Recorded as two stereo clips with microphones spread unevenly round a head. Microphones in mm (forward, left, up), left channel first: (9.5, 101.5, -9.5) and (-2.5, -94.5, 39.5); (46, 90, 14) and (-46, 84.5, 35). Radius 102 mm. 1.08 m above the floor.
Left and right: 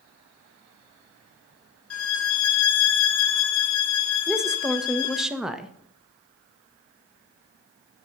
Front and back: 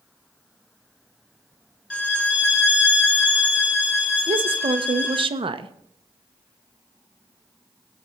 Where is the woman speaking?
165° left, 0.8 m.